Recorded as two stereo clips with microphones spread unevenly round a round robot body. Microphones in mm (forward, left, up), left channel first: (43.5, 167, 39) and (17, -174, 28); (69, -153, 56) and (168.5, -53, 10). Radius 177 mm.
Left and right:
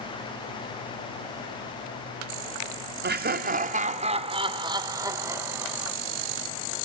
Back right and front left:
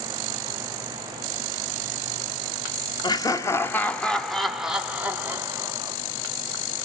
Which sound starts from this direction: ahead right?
Laughter, at 3.0 s.